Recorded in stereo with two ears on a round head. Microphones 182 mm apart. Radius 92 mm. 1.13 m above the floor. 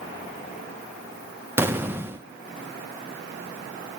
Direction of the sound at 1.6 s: 10° right (ahead or behind).